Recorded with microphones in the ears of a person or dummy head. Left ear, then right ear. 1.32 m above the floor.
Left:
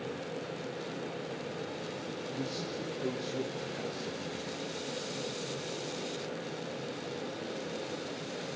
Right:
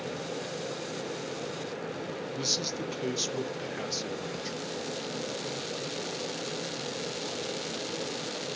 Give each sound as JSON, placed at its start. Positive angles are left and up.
{"t": 2.4, "sound": "a man speaking", "side_deg": -80, "distance_m": 1.1}